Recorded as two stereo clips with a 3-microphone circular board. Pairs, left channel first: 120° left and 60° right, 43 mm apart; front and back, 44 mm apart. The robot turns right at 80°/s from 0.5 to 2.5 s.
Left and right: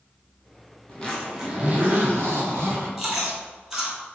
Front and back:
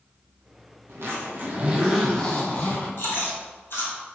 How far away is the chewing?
About 1.3 m.